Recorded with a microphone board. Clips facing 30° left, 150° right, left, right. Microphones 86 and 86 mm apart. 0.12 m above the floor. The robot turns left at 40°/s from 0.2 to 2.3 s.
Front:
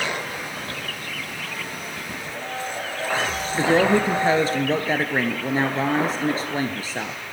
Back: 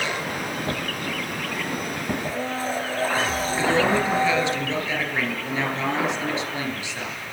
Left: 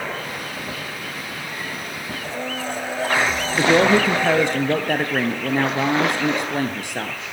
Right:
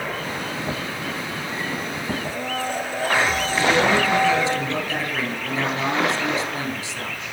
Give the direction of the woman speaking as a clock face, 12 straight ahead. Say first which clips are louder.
Front 3 dB, left 4 dB; 10 o'clock.